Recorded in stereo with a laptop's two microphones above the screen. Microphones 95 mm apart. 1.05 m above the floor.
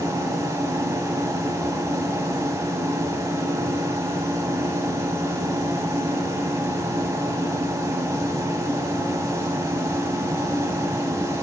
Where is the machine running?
35° right (ahead or behind), 1.2 m.